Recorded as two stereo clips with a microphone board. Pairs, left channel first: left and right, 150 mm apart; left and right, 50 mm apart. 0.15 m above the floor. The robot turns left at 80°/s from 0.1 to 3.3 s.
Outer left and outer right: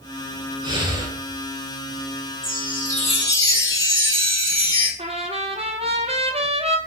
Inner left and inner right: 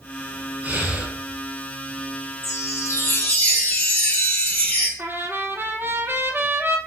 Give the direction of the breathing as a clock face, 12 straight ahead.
3 o'clock.